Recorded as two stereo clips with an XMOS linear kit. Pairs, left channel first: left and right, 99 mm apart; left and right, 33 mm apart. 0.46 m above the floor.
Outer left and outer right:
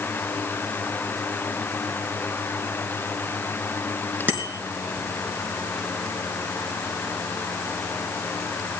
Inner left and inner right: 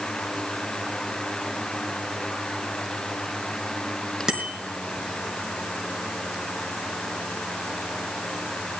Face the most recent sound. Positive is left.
turn(degrees=-15)  # may be behind; listen again after turning